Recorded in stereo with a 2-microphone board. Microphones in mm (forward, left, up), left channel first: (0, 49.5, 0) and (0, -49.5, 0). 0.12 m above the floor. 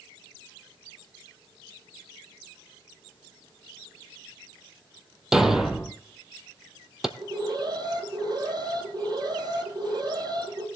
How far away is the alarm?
About 2.5 m.